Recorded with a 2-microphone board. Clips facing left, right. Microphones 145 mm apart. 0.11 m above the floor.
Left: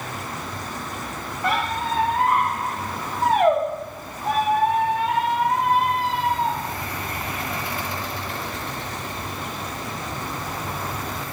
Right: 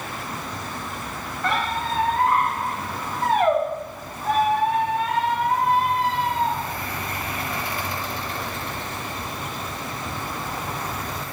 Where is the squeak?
15° left (ahead or behind), 3.5 m.